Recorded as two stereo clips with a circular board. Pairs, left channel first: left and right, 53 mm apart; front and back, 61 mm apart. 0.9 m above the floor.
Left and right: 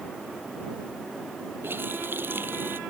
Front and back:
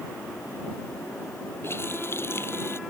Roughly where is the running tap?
Ahead right.